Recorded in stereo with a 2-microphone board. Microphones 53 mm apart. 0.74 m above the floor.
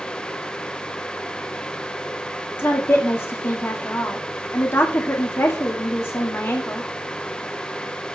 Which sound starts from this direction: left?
A woman speaking, at 2.6 s.